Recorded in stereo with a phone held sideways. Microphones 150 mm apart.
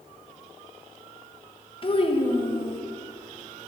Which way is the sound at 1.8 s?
40° left (ahead or behind).